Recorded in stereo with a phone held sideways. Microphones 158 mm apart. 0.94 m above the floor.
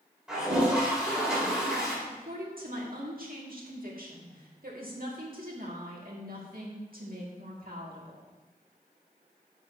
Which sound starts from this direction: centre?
A toilet flushing, at 0.3 s.